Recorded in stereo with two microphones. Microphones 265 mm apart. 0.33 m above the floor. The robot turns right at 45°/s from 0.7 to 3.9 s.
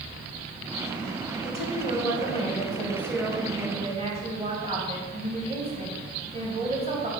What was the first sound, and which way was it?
A woman speaking, 100° left.